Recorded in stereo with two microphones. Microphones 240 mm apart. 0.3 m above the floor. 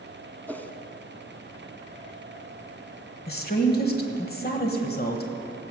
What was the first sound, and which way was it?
A whoosh, 10° left (ahead or behind).